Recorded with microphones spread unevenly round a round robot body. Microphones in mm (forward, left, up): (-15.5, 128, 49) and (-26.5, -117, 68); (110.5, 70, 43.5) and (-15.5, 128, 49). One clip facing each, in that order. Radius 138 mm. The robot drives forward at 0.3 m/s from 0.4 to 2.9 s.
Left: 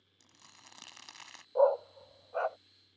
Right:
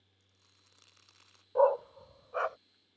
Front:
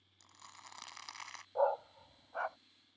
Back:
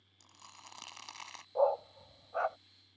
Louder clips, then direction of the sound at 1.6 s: Even, back 3 dB; 140° right.